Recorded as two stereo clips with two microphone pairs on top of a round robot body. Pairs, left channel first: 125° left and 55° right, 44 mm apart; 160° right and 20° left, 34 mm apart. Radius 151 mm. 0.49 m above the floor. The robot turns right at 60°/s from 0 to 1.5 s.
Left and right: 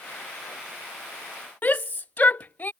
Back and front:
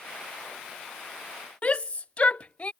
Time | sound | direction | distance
1.6 | a shout | 150° left | ?